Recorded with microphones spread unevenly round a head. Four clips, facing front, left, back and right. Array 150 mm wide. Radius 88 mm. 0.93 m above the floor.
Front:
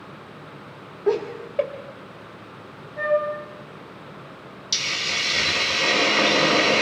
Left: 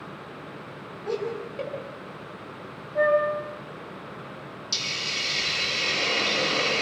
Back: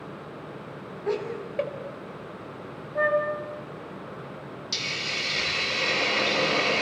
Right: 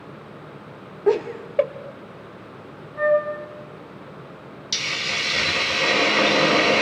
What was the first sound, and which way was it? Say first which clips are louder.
Laughter: right 9 dB, front 6 dB; 60° right.